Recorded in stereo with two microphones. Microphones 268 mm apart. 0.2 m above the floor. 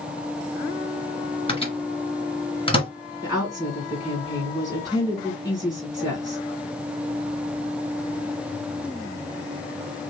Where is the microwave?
20° left (ahead or behind), 1.6 m.